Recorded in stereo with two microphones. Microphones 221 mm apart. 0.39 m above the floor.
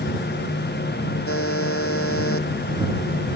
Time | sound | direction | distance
1.3 | a buzzer | 80° left | ?